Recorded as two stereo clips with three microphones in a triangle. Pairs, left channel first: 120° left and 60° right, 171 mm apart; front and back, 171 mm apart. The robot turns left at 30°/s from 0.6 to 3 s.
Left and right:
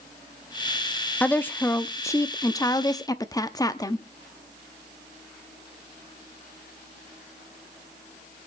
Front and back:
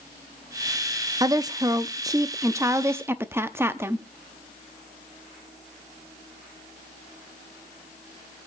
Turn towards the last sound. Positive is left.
turn(degrees=130)